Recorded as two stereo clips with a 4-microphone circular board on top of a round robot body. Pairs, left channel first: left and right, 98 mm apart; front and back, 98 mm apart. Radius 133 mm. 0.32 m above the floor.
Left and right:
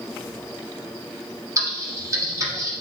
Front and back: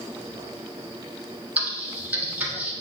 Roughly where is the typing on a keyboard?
Behind right.